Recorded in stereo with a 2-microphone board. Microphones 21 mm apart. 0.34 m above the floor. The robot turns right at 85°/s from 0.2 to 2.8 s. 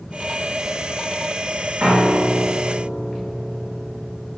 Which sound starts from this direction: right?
A piano, at 1.8 s.